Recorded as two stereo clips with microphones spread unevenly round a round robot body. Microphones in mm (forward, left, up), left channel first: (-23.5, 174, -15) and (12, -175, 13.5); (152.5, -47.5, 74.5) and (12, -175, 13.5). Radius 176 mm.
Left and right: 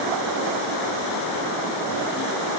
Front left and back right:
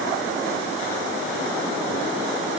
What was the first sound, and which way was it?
Only background noise.